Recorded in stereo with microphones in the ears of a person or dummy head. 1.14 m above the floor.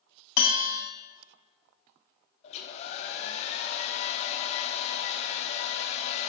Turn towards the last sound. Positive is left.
turn(degrees=30)  # may be behind; listen again after turning